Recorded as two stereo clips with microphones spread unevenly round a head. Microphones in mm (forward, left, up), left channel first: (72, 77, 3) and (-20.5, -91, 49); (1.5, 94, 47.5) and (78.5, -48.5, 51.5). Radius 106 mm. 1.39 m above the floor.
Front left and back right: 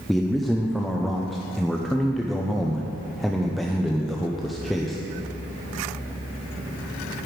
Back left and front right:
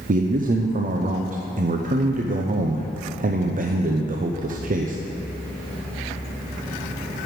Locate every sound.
0.1 s a man speaking: 25° right, 0.7 m